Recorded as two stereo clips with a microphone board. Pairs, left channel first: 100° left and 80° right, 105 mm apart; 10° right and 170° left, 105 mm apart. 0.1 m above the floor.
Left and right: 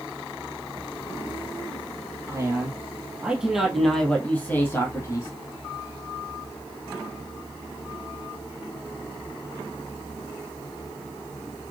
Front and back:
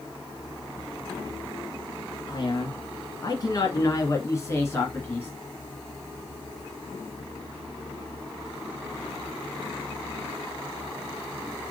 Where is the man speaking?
35° right, 2.5 m; by 5.3 s 55° left, 2.5 m.